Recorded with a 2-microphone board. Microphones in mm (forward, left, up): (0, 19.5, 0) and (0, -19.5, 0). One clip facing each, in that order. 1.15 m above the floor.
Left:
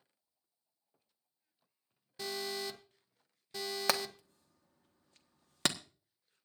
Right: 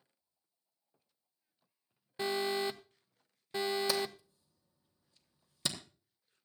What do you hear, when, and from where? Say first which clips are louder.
2.2 s an alarm: right 6 dB; 25° right (ahead or behind), 0.8 m
3.9 s hammering: even; 65° left (ahead or behind), 1.3 m